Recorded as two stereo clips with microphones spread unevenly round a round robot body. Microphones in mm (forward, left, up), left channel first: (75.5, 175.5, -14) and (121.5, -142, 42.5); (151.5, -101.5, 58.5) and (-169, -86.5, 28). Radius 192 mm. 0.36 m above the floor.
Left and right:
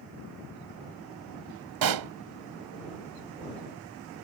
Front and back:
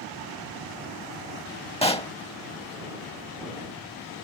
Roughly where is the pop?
Right.